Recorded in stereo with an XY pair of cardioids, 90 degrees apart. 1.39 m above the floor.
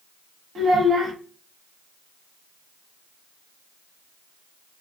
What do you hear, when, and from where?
0.6 s a child speaking: 65° right, 1.2 m